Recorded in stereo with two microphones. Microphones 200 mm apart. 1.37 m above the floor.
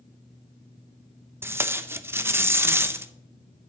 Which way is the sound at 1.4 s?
10° right (ahead or behind).